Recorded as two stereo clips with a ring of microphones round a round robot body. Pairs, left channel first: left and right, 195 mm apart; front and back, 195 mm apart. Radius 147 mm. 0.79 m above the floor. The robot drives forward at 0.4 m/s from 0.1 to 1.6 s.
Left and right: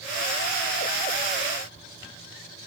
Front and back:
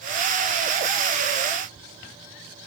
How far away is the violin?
I don't hear a violin.